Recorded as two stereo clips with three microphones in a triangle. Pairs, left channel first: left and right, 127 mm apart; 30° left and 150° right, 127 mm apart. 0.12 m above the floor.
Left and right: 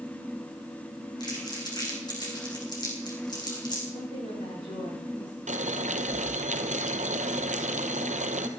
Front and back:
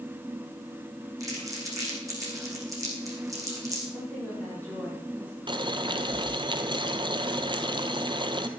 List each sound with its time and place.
1.2 s crumpling: 145° left, 4.5 m
3.9 s a woman speaking: 100° left, 6.5 m
5.5 s boiling: 100° right, 1.1 m